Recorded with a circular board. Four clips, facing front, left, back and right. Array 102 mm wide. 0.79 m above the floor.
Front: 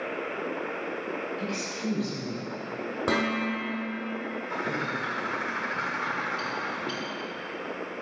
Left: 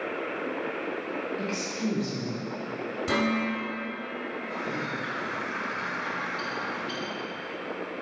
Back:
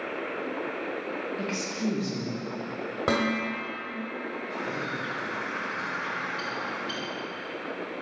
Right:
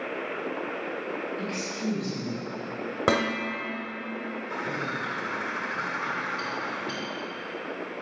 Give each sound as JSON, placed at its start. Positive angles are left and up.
{"t": 1.4, "sound": "a woman speaking", "azimuth_deg": 155, "distance_m": 1.6}
{"t": 3.1, "sound": "dishes clattering", "azimuth_deg": -95, "distance_m": 2.0}
{"t": 4.5, "sound": "a bird", "azimuth_deg": -25, "distance_m": 0.8}